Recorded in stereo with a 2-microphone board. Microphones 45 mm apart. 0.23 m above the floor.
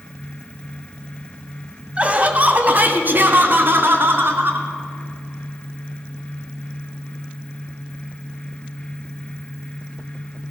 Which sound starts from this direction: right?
Laughter, at 2.0 s.